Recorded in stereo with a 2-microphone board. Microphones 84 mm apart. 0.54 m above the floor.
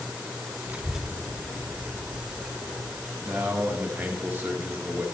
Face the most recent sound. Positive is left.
turn(degrees=-20)  # may be behind; listen again after turning